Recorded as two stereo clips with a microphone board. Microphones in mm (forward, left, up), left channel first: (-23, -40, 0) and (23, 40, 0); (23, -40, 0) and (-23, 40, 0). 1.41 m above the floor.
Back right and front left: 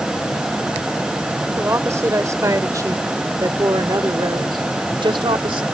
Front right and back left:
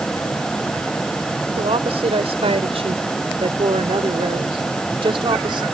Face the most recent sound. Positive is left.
turn(degrees=85)